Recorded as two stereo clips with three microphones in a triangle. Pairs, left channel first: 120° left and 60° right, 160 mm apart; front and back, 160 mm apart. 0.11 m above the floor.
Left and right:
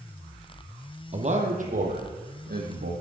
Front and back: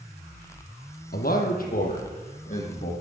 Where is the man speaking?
15° right, 3.5 m; by 2.9 s 45° right, 5.5 m.